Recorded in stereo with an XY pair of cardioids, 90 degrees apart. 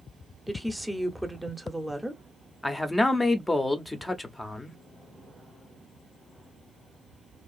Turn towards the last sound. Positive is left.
turn(degrees=20)